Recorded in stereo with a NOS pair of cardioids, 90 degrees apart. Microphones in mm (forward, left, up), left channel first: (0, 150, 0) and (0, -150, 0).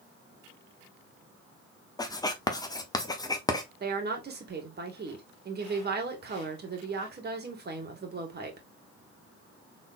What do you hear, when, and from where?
2.0 s writing: 15° left, 1.0 m
3.8 s a woman speaking: 35° right, 2 m